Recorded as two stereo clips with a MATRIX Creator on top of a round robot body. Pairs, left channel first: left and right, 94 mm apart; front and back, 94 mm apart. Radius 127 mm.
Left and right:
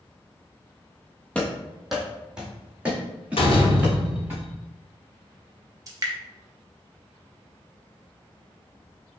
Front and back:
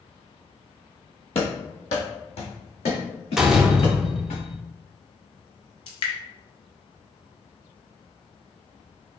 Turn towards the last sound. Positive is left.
turn(degrees=-35)